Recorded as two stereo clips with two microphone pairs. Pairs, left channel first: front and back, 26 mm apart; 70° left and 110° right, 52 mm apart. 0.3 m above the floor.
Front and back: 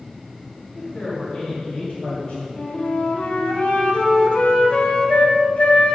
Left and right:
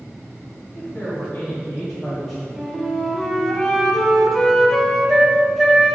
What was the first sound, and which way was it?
A woman speaking, 20° left.